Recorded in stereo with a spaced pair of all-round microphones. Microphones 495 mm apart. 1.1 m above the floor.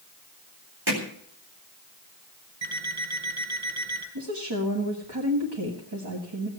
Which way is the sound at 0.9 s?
50° right (ahead or behind).